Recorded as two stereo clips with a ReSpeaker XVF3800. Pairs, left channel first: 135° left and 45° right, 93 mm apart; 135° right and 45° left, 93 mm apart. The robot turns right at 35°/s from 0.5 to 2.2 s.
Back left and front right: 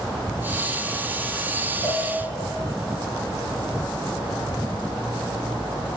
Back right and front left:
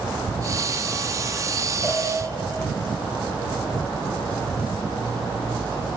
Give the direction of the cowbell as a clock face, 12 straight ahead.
7 o'clock.